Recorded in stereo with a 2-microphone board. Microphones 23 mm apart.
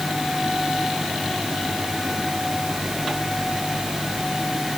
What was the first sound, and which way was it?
Only background noise.